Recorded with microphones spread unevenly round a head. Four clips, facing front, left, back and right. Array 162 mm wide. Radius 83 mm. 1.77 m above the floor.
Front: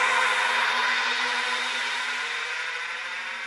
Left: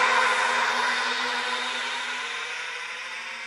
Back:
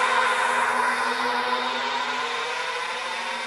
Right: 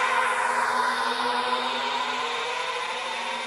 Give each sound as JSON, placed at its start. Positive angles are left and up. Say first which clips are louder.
{"t": 0.0, "sound": "a drone", "louder": "left 1 dB, back 3 dB", "azimuth_deg": 150}